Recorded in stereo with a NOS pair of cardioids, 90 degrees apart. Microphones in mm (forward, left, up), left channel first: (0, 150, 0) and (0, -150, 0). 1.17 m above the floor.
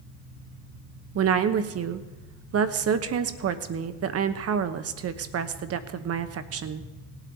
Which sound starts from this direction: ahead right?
A woman speaking, at 1.1 s.